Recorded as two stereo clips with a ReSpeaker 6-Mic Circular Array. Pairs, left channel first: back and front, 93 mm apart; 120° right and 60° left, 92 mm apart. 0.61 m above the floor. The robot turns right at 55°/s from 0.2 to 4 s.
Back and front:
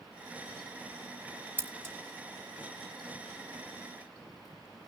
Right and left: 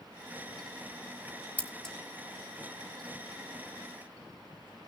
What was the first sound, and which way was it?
Scissors, 60° right.